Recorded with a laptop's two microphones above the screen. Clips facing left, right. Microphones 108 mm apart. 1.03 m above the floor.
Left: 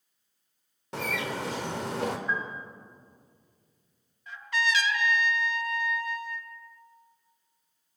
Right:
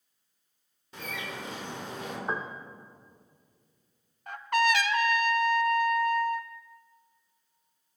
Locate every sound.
0.9 s a bird: 65° left (ahead or behind), 1.2 m
2.3 s a piano: 40° right (ahead or behind), 0.9 m
4.3 s a trumpet: 50° right (ahead or behind), 0.5 m